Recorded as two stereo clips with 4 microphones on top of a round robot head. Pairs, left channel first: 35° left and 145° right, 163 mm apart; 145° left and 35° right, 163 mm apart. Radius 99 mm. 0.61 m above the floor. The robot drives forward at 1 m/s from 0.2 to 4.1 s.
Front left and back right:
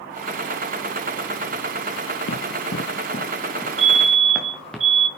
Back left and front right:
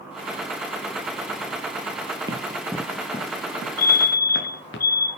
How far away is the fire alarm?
About 4.5 m.